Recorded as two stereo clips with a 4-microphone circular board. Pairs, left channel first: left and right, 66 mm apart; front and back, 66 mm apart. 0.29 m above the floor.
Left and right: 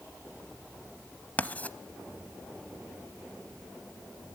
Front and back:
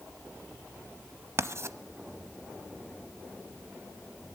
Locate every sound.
1.4 s writing: 150° left, 0.8 m